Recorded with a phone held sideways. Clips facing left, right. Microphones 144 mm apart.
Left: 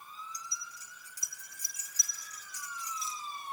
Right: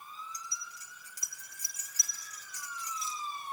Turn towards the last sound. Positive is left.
turn(degrees=-80)